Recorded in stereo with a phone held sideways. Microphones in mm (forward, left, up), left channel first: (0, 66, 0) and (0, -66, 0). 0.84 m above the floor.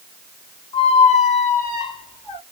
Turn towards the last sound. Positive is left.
turn(degrees=60)  # may be behind; listen again after turning